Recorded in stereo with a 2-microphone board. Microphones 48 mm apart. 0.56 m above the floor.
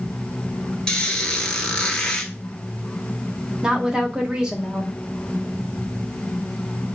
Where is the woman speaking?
20° right (ahead or behind), 0.9 m.